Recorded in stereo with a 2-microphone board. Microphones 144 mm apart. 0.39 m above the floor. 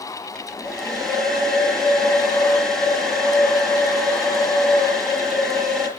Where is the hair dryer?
5° left (ahead or behind), 5.5 m.